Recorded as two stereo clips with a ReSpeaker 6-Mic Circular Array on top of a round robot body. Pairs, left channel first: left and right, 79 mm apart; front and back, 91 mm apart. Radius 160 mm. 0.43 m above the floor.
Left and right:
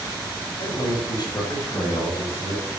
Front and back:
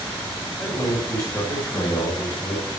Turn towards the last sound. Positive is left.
turn(degrees=30)